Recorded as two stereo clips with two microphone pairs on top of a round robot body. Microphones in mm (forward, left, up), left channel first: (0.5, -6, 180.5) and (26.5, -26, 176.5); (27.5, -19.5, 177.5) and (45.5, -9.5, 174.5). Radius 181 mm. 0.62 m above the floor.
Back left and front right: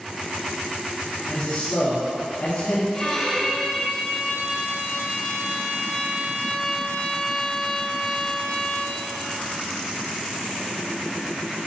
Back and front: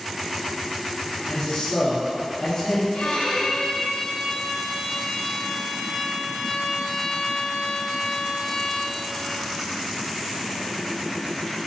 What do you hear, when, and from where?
1.3 s a man speaking: 170° left, 1.8 m
2.9 s a violin: 150° right, 1.8 m